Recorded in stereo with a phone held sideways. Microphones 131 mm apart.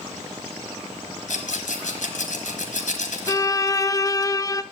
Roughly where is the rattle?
Left.